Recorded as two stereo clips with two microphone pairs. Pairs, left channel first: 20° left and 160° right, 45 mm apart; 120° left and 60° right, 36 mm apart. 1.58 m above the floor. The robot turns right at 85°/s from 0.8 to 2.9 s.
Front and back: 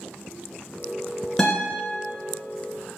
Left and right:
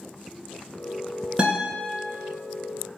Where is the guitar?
50° right, 1.5 m; by 1.9 s 10° right, 1.5 m.